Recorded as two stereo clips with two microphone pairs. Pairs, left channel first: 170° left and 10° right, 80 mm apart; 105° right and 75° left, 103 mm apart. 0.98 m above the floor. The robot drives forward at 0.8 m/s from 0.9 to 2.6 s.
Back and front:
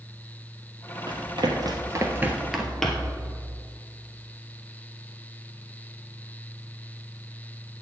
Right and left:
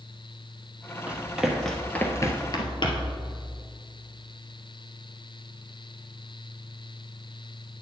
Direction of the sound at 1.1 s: Straight ahead.